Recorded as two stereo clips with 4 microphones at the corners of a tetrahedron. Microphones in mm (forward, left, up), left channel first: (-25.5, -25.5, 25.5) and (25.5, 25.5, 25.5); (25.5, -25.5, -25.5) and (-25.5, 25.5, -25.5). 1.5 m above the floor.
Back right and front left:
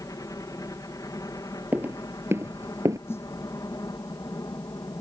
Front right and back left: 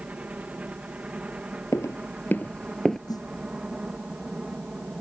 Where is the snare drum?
80° right.